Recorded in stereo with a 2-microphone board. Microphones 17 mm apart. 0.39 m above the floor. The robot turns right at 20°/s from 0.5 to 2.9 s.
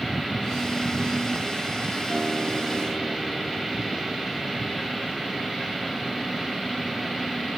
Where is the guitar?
5° right (ahead or behind), 0.9 m; by 4.4 s 10° right (ahead or behind), 0.9 m.